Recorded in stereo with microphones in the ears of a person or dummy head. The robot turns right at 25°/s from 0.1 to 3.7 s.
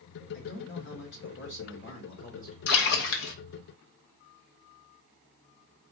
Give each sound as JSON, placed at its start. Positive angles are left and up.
{"t": 0.3, "sound": "a man speaking", "azimuth_deg": 85, "distance_m": 2.0}
{"t": 2.7, "sound": "a splash", "side_deg": 70, "distance_m": 1.0}